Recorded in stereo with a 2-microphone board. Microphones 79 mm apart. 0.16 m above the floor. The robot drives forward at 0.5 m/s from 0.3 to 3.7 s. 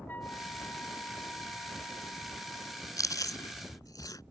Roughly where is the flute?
Left.